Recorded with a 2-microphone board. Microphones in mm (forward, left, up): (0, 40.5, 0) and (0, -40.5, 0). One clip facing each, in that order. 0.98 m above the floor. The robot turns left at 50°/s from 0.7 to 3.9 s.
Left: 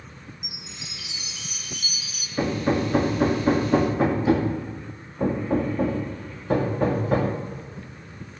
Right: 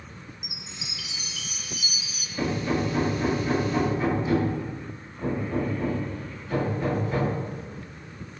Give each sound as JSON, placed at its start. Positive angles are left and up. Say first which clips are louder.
{"t": 0.4, "sound": "a chime", "louder": "even", "azimuth_deg": 45, "distance_m": 0.9}
{"t": 2.4, "sound": "hammering", "louder": "left 3 dB", "side_deg": 30, "distance_m": 1.8}